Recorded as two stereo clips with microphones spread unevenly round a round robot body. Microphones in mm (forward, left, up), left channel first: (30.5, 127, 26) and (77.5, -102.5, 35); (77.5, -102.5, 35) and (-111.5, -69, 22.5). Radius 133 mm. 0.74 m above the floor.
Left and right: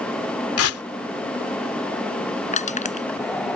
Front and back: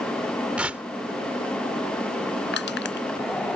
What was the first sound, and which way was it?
Tearing paper, 85° left.